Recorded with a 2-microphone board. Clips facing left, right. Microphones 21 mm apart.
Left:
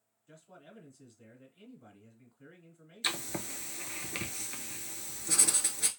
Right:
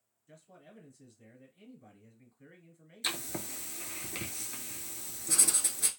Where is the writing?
20° left (ahead or behind), 0.6 m.